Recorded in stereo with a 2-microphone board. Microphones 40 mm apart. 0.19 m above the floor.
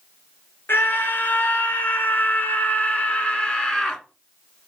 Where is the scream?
65° left (ahead or behind), 2 m; by 4.0 s 15° left (ahead or behind), 1.8 m.